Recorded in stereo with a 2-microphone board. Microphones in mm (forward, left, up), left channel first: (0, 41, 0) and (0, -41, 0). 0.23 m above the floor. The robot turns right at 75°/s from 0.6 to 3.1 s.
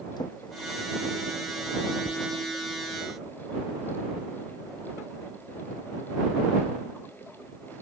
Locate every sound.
0.2 s a drawer: 65° left (ahead or behind); by 2.3 s 60° right (ahead or behind)